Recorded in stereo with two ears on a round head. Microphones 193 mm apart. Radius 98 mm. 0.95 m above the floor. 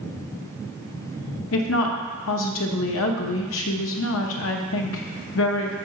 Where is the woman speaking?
65° left (ahead or behind), 0.8 m.